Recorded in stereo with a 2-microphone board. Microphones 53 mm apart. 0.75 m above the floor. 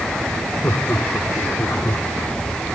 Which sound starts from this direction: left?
Laughter, at 0.6 s.